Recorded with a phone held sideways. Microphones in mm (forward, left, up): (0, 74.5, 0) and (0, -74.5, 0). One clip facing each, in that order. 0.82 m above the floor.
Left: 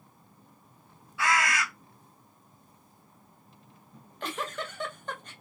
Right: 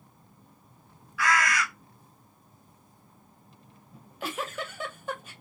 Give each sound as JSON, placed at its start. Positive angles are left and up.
{"t": 1.2, "sound": "a bird", "side_deg": 25, "distance_m": 0.8}
{"t": 3.9, "sound": "a giggle", "side_deg": -5, "distance_m": 0.6}